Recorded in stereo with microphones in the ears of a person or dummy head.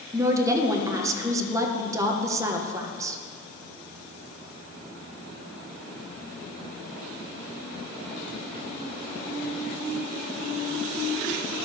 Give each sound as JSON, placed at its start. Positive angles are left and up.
{"t": 0.1, "sound": "a woman speaking", "side_deg": -10, "distance_m": 1.1}